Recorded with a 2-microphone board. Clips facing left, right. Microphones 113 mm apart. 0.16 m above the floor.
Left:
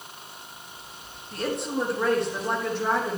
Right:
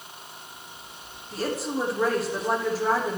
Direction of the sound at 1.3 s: 5° right (ahead or behind).